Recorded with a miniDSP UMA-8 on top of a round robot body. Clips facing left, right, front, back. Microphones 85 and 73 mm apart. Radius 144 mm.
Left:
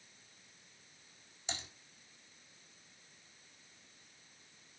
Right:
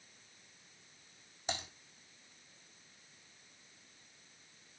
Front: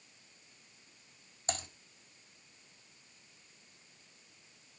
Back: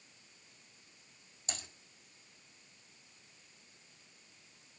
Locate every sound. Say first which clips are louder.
1.5 s typing on a keyboard: right 5 dB, front 8 dB; 45° right, 5.5 m